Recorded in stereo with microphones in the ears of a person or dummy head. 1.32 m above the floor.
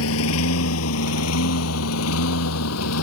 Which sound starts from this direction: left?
A lawn mower, at 0.0 s.